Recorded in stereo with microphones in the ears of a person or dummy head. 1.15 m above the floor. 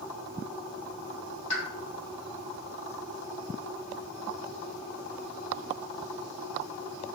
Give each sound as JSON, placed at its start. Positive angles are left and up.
{"t": 1.5, "sound": "a pop", "side_deg": 35, "distance_m": 1.6}